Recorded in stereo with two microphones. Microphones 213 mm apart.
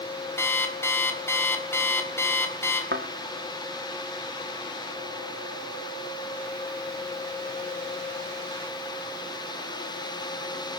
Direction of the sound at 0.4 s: 10° left (ahead or behind).